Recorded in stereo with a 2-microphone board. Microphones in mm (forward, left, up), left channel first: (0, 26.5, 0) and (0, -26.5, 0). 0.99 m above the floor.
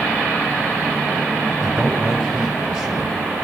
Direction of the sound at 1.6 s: 10° right (ahead or behind).